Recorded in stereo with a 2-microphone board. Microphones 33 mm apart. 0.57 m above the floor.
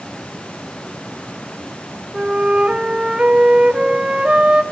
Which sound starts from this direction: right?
A flute, at 2.1 s.